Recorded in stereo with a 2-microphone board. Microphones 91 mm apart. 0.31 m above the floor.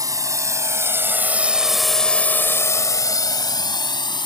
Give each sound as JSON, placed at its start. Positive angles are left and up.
{"t": 0.0, "sound": "a drone", "side_deg": -40}